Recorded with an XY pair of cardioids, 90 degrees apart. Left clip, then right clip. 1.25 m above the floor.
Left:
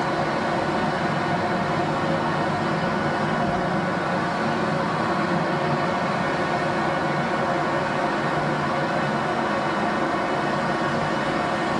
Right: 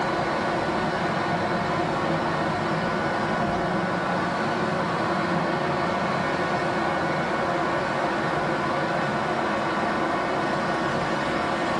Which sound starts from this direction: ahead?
A fan, at 0.0 s.